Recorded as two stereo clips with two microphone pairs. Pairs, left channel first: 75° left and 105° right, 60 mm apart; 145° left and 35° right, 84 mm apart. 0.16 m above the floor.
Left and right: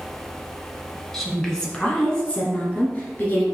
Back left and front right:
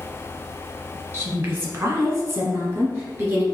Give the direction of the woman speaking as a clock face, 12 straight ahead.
12 o'clock.